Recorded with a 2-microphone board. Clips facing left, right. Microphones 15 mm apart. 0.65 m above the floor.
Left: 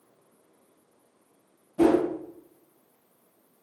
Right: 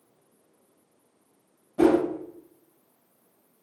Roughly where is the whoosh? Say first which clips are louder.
Right 1 dB; centre.